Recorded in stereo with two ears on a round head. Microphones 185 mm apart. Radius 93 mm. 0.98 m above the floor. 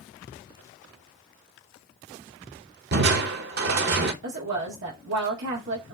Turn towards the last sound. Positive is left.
turn(degrees=-65)  # may be behind; listen again after turning